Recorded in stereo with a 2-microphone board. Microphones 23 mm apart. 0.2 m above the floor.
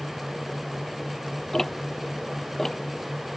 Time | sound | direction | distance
1.5 | ticking | 20° left (ahead or behind) | ?